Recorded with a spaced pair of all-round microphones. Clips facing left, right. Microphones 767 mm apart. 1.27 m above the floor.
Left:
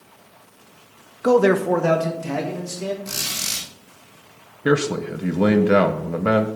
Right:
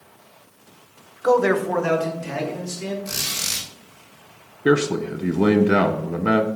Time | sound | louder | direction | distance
1.2 | a man speaking | left 2 dB | 60° left (ahead or behind) | 0.7 m
3.0 | a squeak | even | 5° right (ahead or behind) | 5 m
4.7 | a man speaking | right 1 dB | 10° left (ahead or behind) | 0.8 m